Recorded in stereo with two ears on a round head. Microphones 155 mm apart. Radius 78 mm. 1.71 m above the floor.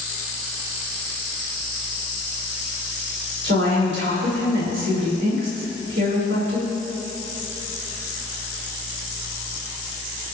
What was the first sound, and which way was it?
A woman speaking, 75° right (ahead or behind).